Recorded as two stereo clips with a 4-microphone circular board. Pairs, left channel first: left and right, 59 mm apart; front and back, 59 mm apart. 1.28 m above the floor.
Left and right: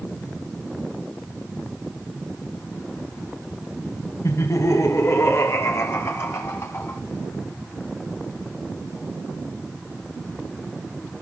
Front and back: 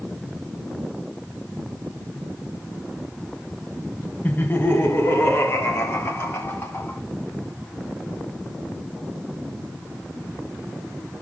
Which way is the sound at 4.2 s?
60° left.